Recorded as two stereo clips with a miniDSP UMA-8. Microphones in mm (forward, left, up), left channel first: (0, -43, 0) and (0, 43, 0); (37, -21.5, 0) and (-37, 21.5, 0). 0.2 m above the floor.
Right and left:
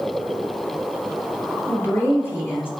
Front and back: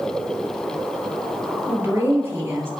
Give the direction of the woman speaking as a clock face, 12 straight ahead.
5 o'clock.